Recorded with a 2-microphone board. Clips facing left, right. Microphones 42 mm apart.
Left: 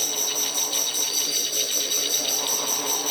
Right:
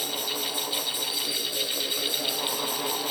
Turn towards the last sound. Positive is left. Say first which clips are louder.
# left 1 dB
turn(degrees=-20)  # may be behind; listen again after turning